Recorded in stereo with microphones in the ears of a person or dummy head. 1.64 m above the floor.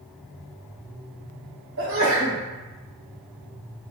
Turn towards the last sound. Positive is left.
turn(degrees=-70)  # may be behind; listen again after turning